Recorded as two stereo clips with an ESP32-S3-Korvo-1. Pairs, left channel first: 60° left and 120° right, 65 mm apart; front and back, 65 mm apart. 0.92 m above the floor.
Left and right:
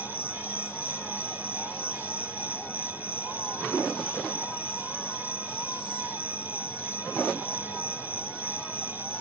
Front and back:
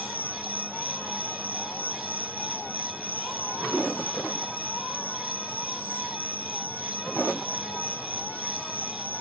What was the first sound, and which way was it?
An insect, 115° left.